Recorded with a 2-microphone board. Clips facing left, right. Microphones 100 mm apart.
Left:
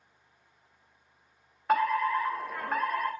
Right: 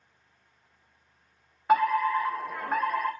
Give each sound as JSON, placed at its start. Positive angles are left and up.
{"t": 1.7, "sound": "a fire alarm", "side_deg": -5, "distance_m": 1.7}